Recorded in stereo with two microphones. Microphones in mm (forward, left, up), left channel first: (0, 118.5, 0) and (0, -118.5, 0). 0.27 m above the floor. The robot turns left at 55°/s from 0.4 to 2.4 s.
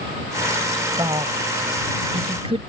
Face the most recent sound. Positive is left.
turn(degrees=-25)  # may be behind; listen again after turning